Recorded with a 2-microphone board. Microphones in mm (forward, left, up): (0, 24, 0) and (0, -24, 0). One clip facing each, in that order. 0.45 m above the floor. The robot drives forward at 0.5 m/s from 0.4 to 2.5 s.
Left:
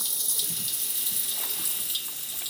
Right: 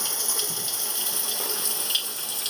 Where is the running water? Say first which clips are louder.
Right 6 dB; 55° right (ahead or behind); by 2.5 s 65° right (ahead or behind).